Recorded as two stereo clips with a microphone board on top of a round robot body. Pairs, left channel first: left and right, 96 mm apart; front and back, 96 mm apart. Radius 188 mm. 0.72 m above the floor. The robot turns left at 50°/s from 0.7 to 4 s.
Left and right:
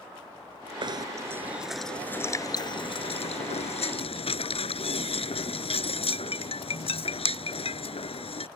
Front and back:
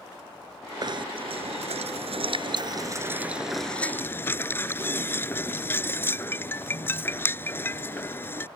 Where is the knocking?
135° right; by 8.5 s 70° left.